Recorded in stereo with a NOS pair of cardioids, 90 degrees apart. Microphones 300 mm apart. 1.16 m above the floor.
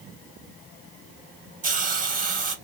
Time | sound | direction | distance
1.6 | a hiss | 30° right | 0.9 m